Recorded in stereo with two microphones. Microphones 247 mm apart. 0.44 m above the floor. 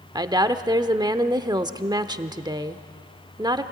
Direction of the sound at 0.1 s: 15° right (ahead or behind).